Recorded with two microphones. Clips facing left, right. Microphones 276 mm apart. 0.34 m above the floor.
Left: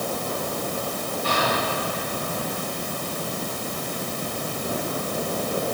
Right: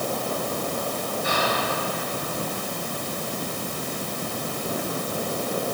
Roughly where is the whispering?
Centre.